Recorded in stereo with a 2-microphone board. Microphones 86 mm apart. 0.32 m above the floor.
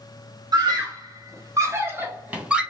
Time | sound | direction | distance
0.5 | a scream | 55° right (ahead or behind) | 1.6 m